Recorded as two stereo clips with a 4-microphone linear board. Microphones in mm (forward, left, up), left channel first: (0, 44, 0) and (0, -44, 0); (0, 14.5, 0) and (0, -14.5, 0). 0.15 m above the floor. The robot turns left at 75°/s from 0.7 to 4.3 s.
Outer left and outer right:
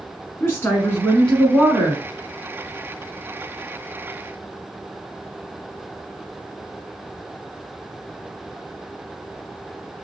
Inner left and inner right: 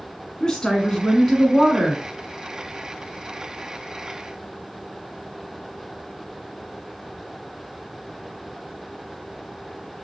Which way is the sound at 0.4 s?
60° left.